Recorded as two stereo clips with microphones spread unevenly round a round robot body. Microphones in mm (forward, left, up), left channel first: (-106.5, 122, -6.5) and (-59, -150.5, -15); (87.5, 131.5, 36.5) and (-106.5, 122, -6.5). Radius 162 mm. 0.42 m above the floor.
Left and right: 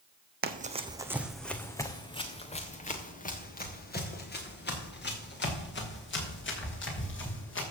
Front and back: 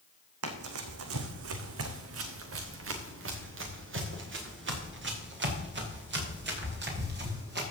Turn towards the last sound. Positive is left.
turn(degrees=150)